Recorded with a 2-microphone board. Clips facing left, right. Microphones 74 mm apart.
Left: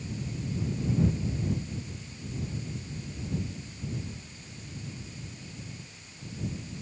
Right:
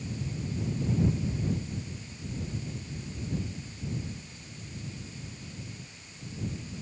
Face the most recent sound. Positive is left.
No sound to turn to.